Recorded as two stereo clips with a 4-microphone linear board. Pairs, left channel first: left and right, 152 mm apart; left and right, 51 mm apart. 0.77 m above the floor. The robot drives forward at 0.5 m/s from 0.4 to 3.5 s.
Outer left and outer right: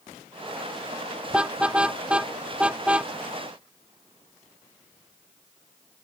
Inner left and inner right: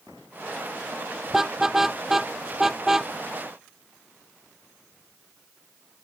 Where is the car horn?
5° right (ahead or behind).